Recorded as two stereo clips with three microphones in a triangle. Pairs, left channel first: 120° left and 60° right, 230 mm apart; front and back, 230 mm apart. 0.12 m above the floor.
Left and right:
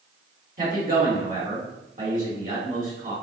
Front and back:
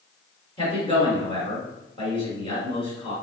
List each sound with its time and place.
0.6 s a man speaking: 55° right, 1.8 m